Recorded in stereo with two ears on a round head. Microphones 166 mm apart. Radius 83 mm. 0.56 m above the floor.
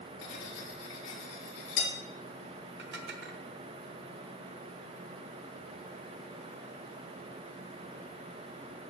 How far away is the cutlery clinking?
About 6 m.